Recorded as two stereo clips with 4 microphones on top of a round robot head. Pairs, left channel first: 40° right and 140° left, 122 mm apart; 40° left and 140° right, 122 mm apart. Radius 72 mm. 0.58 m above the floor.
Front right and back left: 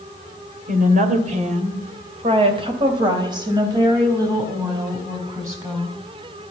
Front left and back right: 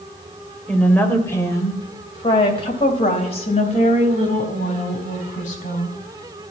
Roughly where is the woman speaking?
Behind left.